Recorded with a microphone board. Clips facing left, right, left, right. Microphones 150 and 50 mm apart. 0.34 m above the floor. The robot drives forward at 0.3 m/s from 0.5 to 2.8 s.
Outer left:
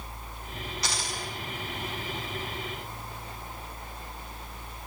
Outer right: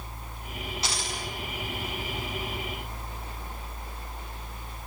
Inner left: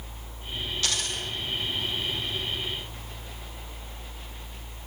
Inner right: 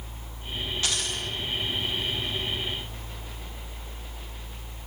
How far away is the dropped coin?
About 8 m.